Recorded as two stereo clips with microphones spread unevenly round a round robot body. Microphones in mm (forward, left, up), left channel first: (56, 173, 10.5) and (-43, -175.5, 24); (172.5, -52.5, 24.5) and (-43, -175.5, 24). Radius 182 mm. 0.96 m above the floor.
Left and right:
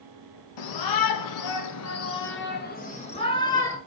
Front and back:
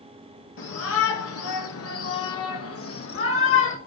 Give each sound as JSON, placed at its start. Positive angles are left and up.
{"t": 0.6, "sound": "a shout", "azimuth_deg": 70, "distance_m": 1.4}